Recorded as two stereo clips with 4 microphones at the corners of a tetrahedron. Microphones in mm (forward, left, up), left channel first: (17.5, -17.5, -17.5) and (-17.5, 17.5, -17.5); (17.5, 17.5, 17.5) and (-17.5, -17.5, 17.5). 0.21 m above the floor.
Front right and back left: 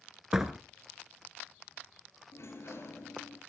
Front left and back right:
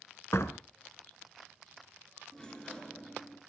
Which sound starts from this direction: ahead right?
A sliding door, at 2.3 s.